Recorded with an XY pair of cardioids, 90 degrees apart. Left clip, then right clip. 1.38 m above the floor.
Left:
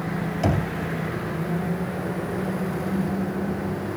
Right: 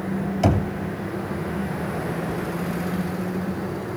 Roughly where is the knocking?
Ahead right.